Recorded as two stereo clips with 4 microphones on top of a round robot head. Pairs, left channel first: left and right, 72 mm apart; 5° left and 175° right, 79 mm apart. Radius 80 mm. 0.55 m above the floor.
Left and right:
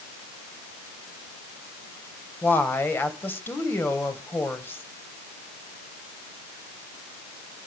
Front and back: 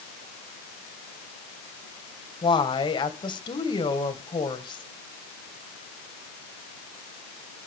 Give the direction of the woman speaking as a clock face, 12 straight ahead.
11 o'clock.